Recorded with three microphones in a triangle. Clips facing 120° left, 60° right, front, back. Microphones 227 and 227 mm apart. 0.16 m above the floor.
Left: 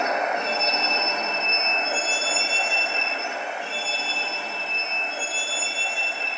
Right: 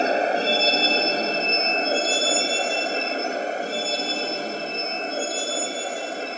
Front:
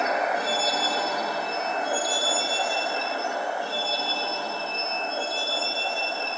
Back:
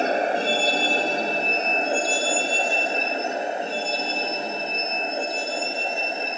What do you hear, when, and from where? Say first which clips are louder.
0.0 s a vehicle: right 5 dB, back 4 dB; 120° right; by 6.4 s 110° right